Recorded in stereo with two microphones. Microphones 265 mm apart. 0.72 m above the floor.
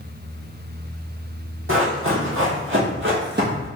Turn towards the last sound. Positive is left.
turn(degrees=-35)  # may be behind; listen again after turning